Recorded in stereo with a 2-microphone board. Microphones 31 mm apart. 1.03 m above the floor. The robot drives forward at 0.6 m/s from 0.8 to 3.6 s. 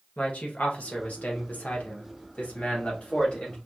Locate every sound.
0.2 s a man speaking: 45° left (ahead or behind), 1.2 m; by 3.5 s 35° left (ahead or behind), 1.5 m